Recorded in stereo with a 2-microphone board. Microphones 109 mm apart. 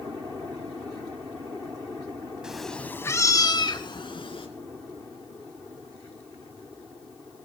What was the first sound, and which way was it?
A cat meowing, 5° right (ahead or behind).